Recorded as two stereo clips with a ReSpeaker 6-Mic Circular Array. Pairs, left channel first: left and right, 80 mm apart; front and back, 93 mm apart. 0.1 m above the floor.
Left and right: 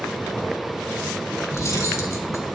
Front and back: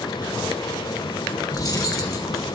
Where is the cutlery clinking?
45° left, 1.6 m.